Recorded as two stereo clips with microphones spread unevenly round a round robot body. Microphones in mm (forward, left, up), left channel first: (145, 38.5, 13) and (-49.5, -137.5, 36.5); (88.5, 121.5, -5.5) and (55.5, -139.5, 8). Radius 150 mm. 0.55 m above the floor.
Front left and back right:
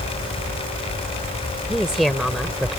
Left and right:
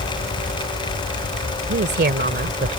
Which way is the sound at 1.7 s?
50° right.